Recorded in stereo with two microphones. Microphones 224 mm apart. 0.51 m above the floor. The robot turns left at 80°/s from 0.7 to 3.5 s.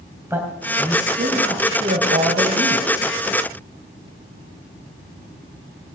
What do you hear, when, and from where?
0.3 s a man speaking: 10° right, 3 m; by 3.1 s 155° left, 3 m